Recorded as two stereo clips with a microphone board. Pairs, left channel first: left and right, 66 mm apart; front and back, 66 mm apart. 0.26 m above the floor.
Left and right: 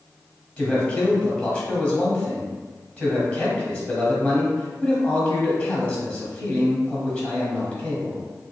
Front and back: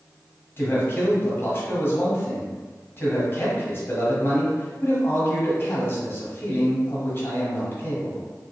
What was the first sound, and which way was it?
A man speaking, 25° left.